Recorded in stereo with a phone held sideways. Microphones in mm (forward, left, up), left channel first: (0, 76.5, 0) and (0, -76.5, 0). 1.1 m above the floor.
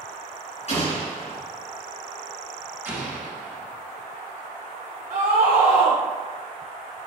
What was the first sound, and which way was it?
An explosion, 50° left (ahead or behind).